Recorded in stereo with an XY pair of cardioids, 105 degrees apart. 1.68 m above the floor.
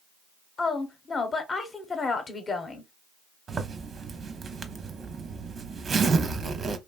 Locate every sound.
0.6 s a woman speaking: 35° left, 0.9 m
3.5 s a zipper: 45° right, 0.6 m